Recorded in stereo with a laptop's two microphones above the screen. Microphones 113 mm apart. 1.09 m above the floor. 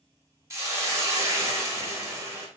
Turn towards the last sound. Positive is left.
turn(degrees=-25)  # may be behind; listen again after turning